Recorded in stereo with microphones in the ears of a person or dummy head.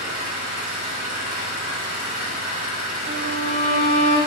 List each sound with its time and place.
0.0 s an engine running: 55° right (ahead or behind), 2.5 m
3.1 s a violin: 35° right (ahead or behind), 0.9 m